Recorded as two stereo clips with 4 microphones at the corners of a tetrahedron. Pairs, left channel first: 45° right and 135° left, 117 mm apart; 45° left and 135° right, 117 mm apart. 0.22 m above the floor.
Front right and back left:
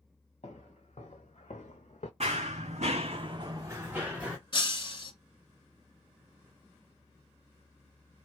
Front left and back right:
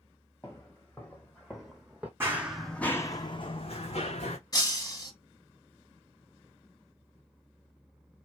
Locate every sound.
0.4 s footsteps: 20° right, 1.3 m; by 2.1 s 60° right, 0.8 m
2.2 s running footsteps: 155° left, 0.7 m; by 4.4 s 55° left, 1.0 m
4.5 s breaking glass: 10° right, 0.8 m